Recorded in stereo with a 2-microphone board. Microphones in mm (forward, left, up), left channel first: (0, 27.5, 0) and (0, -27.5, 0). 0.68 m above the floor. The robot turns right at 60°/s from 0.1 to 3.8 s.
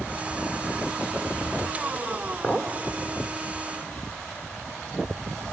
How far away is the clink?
About 1.3 m.